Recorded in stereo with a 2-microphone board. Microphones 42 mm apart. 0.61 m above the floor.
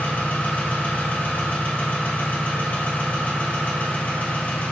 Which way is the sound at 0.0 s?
45° left (ahead or behind).